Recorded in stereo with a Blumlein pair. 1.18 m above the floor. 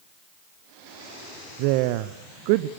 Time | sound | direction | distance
1.6 | a woman speaking | 45° right | 0.8 m